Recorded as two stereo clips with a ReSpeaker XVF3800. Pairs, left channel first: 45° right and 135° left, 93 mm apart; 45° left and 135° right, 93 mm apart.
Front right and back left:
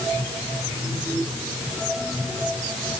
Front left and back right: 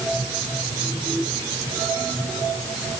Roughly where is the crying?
No crying in this recording.